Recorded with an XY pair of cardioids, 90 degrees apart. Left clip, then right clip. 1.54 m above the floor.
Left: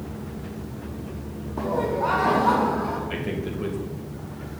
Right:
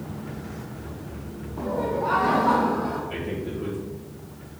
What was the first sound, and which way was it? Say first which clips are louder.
Laughter: left 2 dB; 55° left.